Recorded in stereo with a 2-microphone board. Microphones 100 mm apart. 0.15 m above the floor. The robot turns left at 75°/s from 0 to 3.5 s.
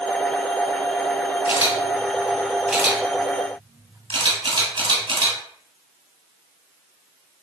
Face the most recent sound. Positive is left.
turn(degrees=-60)  # may be behind; listen again after turning